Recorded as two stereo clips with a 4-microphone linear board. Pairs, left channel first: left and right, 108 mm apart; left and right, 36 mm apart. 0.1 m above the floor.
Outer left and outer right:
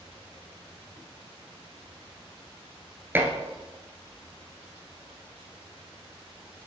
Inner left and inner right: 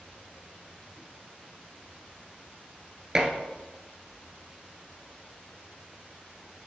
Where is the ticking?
I don't hear ticking.